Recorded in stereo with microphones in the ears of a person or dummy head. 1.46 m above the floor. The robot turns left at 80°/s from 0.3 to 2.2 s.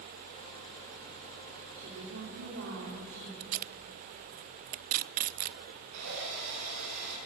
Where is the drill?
90° right, 9.5 m.